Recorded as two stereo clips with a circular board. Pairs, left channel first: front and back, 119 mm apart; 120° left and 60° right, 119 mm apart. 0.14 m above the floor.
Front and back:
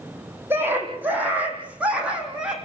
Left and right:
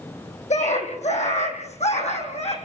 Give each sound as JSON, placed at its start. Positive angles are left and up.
{"t": 0.5, "sound": "a scream", "azimuth_deg": 105, "distance_m": 8.0}